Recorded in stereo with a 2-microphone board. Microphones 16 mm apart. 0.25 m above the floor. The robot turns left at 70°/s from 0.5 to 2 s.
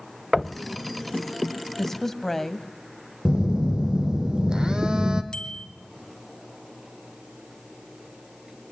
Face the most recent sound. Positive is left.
turn(degrees=65)  # may be behind; listen again after turning